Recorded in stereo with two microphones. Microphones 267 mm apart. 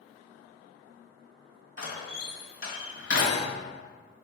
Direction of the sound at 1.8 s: 50° left (ahead or behind).